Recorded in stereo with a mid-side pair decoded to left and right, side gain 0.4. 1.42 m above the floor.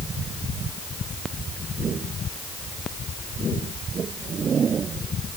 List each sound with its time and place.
Only background noise.